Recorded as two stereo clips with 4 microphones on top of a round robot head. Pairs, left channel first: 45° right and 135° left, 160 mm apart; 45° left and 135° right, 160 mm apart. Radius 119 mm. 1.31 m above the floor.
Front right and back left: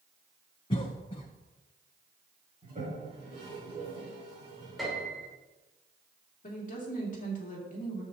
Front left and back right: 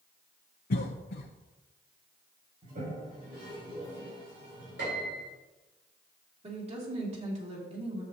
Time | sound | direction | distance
0.7 | a cough | 15° left | 0.7 m
2.6 | a toilet flushing | 175° right | 4 m
4.8 | a piano | 135° right | 4 m
6.4 | a woman speaking | 85° right | 2.5 m